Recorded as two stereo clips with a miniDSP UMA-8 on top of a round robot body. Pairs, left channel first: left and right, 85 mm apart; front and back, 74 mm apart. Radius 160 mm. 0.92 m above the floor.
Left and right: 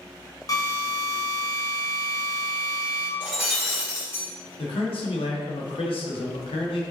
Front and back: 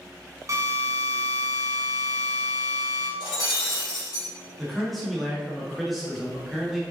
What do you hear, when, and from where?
0.5 s a drill: 135° left, 1.5 m
3.2 s breaking glass: 10° right, 2.5 m
4.6 s a man speaking: 90° left, 1.7 m